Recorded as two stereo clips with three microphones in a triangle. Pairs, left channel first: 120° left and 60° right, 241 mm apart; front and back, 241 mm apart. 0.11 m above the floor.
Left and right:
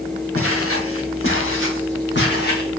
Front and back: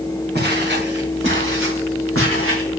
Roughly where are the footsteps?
Behind left.